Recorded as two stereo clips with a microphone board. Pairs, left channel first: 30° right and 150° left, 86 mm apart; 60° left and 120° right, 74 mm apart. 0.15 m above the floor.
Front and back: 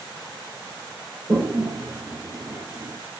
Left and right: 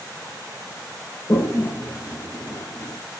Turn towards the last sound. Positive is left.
turn(degrees=90)